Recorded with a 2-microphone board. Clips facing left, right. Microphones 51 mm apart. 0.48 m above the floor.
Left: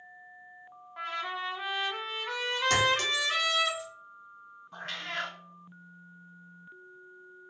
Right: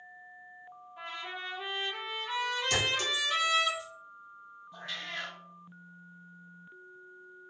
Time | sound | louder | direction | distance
1.0 | a trumpet | left 6 dB | 70° left (ahead or behind) | 0.7 m
2.7 | a clink | left 7 dB | 60° left (ahead or behind) | 1.1 m
4.7 | a cat meowing | left 3 dB | 55° left (ahead or behind) | 0.6 m